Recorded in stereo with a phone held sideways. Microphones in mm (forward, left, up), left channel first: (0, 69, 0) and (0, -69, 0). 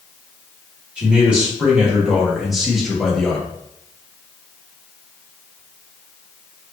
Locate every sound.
1.0 s a man speaking: 5° right (ahead or behind), 2 m; by 3.5 s 5° left (ahead or behind), 1.0 m